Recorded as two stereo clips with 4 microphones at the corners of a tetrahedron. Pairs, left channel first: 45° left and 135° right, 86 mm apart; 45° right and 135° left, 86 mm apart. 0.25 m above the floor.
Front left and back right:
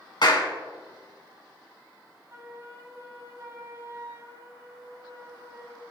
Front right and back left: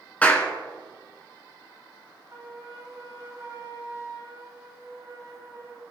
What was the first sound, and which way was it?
A clap, 25° left.